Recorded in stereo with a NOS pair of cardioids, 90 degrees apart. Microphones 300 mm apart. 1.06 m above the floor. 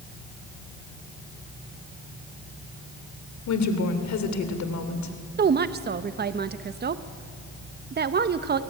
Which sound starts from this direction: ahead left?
A woman speaking, at 3.5 s.